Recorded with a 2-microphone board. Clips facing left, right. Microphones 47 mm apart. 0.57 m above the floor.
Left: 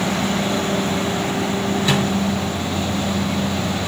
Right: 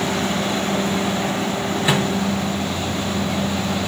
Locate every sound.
1.9 s a microwave: 15° right (ahead or behind), 3 m